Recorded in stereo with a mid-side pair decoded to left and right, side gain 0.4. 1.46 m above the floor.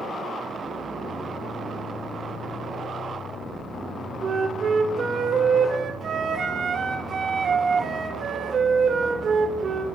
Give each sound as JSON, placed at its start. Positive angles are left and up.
{"t": 4.2, "sound": "a flute", "azimuth_deg": -55, "distance_m": 3.5}